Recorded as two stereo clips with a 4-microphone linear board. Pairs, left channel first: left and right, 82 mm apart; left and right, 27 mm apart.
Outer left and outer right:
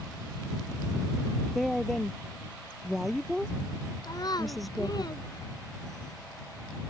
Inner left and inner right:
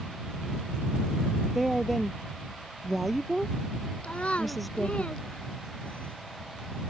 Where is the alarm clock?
I don't hear an alarm clock.